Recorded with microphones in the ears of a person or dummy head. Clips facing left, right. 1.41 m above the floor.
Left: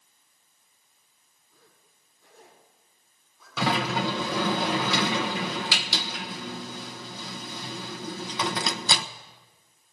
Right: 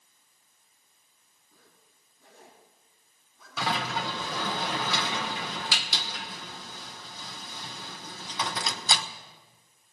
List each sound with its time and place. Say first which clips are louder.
1.5 s a zipper: left 1 dB; 65° right (ahead or behind), 9.5 m
3.6 s a sliding door: left 5 dB; 60° left (ahead or behind), 0.9 m